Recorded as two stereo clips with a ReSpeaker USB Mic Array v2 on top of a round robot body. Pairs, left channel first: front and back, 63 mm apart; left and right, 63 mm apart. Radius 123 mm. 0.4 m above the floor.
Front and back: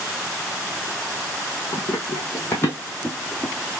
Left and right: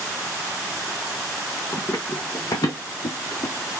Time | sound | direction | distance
1.7 | running footsteps | 35° left | 1.5 m